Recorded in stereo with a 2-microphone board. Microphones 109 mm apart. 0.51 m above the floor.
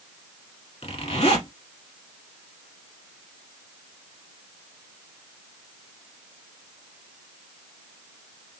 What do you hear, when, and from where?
0.8 s a zipper: 70° left (ahead or behind), 1.1 m